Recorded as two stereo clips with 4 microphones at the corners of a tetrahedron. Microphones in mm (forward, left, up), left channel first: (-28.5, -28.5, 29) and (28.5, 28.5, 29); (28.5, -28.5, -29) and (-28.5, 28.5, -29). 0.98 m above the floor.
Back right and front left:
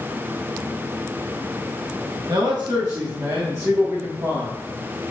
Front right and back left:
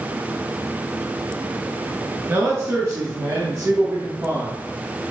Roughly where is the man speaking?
Left.